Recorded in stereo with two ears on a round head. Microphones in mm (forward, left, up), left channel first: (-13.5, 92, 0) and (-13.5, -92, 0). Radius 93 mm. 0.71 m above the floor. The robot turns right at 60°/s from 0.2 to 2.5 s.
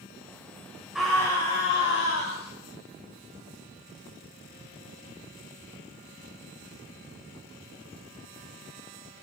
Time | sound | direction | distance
0.9 | a scream | 5° right | 2.5 m